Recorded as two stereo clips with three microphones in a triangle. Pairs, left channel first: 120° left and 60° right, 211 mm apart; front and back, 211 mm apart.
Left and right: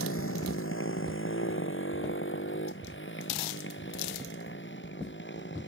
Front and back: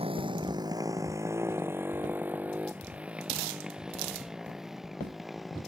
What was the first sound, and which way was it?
A motorcycle, 115° left.